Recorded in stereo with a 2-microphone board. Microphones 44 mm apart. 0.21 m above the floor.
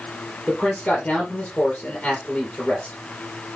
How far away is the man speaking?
About 4.5 m.